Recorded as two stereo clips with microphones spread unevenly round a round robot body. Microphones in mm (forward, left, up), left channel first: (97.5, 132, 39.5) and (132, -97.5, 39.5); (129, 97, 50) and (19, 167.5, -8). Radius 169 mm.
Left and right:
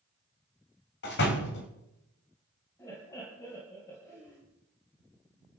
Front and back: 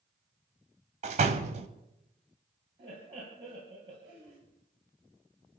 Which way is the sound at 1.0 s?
150° left.